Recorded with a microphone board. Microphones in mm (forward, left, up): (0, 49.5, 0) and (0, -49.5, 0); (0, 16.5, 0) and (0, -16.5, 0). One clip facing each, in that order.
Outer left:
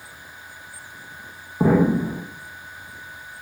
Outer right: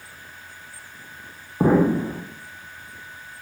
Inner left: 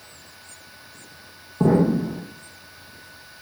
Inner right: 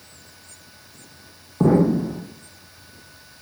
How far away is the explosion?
About 1.2 m.